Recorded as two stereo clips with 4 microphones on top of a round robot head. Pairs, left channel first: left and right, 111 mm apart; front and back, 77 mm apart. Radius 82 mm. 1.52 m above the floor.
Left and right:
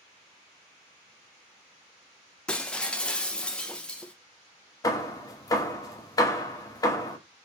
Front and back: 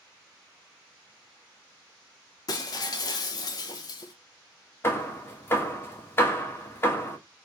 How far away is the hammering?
About 1.0 m.